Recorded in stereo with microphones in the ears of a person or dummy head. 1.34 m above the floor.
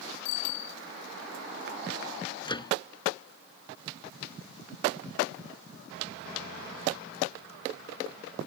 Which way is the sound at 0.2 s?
80° left.